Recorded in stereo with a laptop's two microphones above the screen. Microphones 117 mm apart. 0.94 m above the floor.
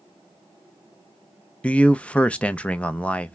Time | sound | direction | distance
1.6 | a man speaking | 10° left (ahead or behind) | 0.5 m